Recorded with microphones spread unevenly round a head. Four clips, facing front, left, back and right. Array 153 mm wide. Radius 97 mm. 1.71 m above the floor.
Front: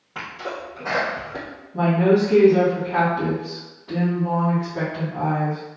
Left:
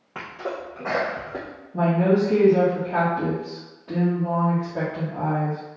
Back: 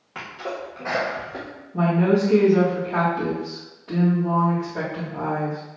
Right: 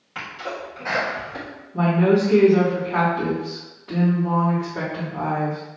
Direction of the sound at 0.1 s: 105° left.